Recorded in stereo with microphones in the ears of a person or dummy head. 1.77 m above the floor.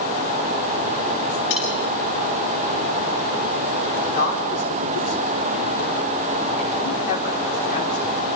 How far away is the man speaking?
About 5 m.